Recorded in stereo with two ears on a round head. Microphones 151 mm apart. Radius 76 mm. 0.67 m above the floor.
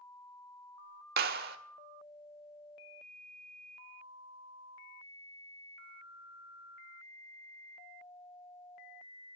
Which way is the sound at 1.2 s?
65° right (ahead or behind).